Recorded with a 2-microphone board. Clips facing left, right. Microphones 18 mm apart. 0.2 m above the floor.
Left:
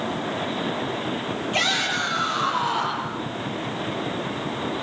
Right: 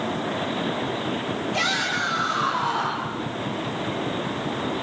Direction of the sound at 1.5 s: 45° left (ahead or behind).